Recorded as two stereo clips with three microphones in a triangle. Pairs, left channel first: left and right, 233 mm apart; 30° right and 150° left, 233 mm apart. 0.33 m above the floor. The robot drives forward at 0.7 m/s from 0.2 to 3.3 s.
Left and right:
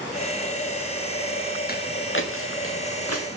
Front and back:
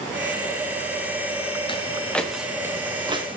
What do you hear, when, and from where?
1.7 s footsteps: 40° left, 2.5 m; by 3.4 s 85° left, 3.5 m